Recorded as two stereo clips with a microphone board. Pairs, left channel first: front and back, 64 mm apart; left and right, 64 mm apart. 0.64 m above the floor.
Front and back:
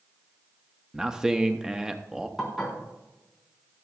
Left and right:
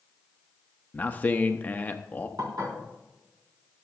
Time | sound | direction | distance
0.9 | a man speaking | 115° left | 0.6 m
2.4 | dishes clattering | 90° right | 4 m